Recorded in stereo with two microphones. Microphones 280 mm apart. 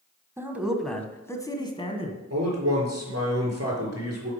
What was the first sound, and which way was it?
A man speaking, 10° right (ahead or behind).